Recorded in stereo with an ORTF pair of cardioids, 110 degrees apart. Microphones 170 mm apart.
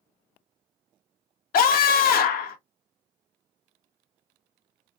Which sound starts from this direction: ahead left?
A scream, at 1.5 s.